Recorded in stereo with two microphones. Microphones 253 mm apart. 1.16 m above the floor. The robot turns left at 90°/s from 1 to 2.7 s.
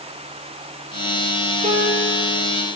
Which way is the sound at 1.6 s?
30° right.